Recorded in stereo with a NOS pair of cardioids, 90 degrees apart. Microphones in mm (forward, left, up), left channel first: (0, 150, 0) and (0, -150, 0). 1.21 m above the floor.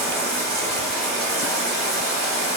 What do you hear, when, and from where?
0.0 s running water: 65° right, 1.5 m